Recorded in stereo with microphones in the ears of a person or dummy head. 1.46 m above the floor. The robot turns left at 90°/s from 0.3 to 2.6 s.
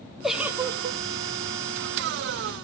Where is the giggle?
5° right, 1.0 m; by 1.0 s 70° right, 1.0 m.